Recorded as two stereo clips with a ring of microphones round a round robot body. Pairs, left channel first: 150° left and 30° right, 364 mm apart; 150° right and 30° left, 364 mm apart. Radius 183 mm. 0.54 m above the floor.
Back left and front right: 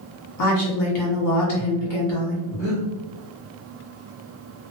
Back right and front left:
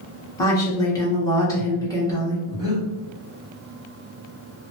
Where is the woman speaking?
130° left, 1.1 m.